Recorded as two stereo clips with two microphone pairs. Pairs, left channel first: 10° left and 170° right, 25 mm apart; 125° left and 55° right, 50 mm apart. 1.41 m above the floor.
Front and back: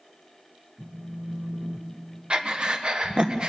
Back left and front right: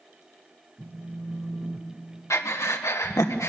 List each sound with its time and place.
0.8 s a phone buzzing: 115° right, 1.6 m
2.3 s breathing: 140° left, 1.3 m